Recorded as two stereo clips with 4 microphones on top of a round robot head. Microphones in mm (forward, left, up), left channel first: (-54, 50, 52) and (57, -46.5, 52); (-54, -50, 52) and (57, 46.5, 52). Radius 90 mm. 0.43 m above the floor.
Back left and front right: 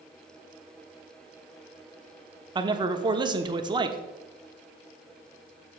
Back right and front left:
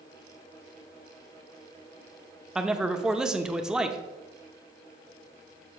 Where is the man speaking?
40° right, 0.9 m.